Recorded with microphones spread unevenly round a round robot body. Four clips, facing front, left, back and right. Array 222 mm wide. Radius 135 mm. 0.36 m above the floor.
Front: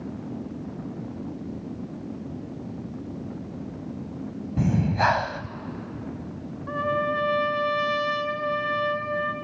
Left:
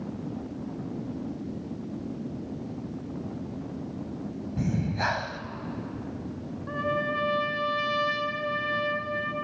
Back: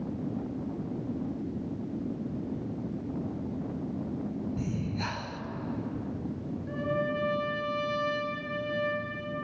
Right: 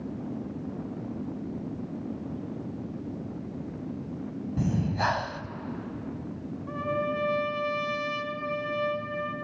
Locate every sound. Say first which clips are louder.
4.6 s breathing: right 1 dB, front 10 dB; straight ahead, 0.9 m
6.7 s a trumpet: left 1 dB, front 6 dB; 15° left, 2.5 m